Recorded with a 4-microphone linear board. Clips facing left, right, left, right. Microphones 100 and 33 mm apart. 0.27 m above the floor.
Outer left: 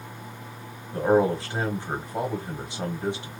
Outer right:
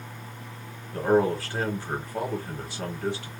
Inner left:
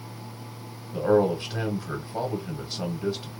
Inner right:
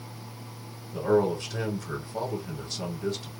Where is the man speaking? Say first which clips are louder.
Outer left 1 dB, inner left 2 dB; 20° left (ahead or behind), 1.3 m.